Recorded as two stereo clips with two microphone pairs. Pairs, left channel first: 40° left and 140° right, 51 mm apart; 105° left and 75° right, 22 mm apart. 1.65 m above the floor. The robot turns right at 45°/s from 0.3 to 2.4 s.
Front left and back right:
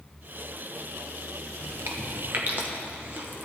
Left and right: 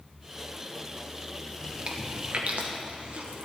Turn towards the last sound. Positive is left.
turn(degrees=-85)